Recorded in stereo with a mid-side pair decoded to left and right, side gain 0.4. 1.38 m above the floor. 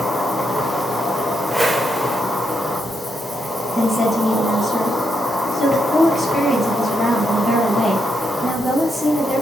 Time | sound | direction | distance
0.0 | an insect | 10° left | 0.8 m
1.5 | a whoosh | 15° right | 0.5 m
3.8 | a woman speaking | 10° right | 0.9 m